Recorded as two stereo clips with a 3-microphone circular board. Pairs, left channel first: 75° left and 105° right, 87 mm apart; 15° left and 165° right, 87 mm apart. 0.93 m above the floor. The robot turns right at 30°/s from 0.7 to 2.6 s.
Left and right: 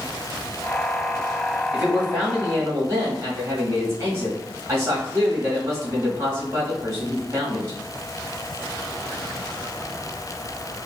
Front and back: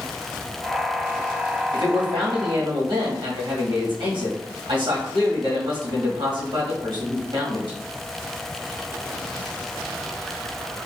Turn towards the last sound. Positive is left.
turn(degrees=-160)